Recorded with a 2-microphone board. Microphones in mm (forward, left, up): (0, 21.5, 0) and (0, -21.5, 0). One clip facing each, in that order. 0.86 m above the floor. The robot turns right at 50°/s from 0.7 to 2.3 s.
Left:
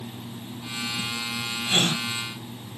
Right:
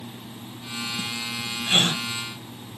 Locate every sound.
1.7 s a gasp: 45° right (ahead or behind), 1.6 m; by 2.0 s 30° right (ahead or behind), 1.6 m